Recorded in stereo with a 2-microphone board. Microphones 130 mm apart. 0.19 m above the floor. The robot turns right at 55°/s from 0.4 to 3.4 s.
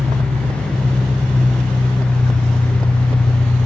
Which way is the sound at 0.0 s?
10° right.